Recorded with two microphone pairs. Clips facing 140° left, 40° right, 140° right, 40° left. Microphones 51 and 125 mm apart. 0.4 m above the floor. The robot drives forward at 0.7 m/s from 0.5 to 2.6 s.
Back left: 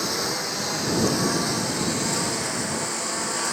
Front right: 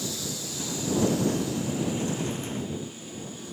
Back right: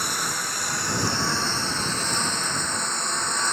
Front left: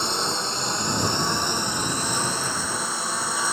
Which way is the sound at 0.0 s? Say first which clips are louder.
Back left 8 dB, front left 3 dB; 110° left.